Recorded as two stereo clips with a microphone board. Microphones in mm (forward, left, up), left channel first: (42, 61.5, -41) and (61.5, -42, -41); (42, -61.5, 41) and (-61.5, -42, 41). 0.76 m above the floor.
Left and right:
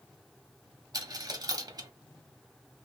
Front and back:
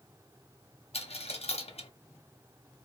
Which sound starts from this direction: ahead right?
A dropped coin, at 0.9 s.